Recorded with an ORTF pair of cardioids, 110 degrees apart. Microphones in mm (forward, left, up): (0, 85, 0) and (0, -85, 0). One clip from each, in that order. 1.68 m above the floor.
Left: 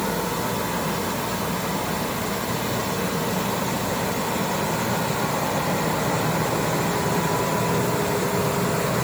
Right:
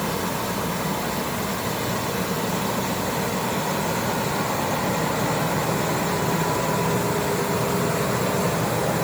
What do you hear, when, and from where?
Only background noise.